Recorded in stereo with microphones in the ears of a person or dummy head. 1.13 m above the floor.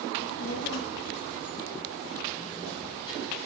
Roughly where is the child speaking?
Left.